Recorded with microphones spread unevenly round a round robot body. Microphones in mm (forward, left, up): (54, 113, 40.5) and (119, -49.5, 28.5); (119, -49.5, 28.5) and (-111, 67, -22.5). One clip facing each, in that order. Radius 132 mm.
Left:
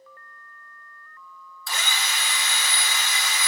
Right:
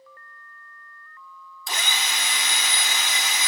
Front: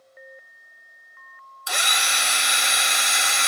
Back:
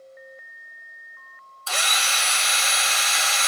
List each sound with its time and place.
1.7 s a drill: 110° right, 0.9 m